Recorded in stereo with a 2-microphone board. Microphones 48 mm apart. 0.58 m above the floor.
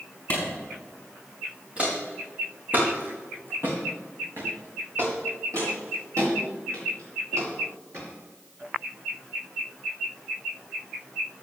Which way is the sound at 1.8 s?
25° right (ahead or behind).